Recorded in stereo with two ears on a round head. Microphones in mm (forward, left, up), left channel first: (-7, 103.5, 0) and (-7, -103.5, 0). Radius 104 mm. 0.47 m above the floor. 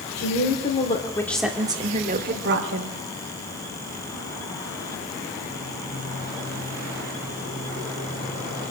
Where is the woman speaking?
45° left (ahead or behind), 2.5 m; by 3.0 s 60° right (ahead or behind), 2.5 m.